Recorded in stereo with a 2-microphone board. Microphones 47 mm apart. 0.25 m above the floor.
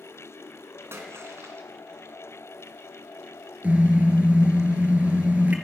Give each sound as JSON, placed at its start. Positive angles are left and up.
{"t": 0.9, "sound": "a splash", "side_deg": -60, "distance_m": 3.0}
{"t": 3.6, "sound": "a car horn", "side_deg": -35, "distance_m": 3.0}